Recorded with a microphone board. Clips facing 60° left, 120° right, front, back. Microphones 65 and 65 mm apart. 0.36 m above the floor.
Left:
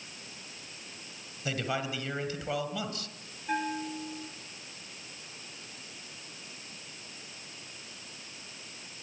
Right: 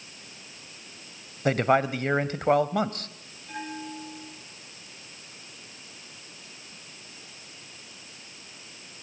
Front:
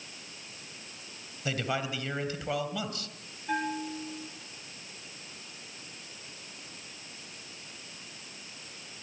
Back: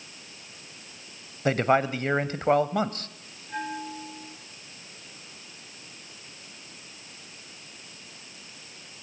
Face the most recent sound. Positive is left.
turn(degrees=20)